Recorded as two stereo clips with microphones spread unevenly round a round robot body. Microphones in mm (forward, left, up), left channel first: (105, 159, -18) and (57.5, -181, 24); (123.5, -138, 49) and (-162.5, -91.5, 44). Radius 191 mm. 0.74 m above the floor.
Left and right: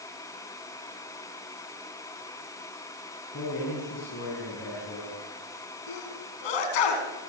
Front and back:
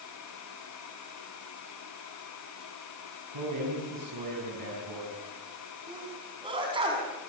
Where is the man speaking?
145° left, 6 m.